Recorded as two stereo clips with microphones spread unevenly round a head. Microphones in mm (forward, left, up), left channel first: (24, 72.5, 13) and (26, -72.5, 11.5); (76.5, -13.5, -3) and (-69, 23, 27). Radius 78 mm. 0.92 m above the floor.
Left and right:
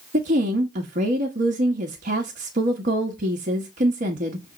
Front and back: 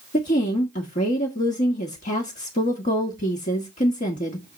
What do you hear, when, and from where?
0.1 s a woman speaking: 55° right, 1.4 m